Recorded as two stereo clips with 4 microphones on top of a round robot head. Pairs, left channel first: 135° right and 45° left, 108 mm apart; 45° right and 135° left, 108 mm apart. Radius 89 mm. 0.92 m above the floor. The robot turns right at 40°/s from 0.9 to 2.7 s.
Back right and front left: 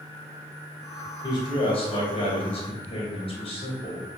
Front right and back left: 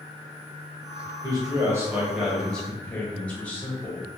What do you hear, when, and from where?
1.2 s a man speaking: straight behind, 1.5 m; by 4.0 s 120° right, 1.5 m